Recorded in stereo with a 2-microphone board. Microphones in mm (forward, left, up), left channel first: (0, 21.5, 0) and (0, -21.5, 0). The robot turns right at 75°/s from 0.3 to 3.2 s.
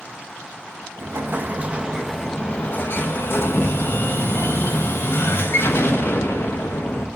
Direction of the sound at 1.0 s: 85° right.